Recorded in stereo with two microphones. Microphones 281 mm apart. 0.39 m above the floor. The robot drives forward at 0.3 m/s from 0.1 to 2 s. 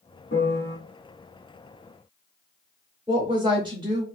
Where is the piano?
40° left (ahead or behind), 1.4 m.